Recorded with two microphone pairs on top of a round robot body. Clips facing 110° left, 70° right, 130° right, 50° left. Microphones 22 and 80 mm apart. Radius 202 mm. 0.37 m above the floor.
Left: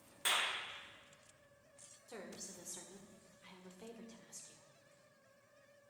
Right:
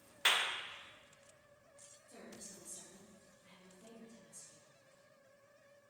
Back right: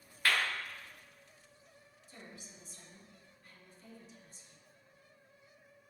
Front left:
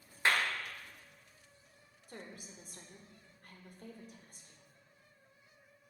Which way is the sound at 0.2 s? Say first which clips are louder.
Right 3 dB, front left 1 dB; 15° right.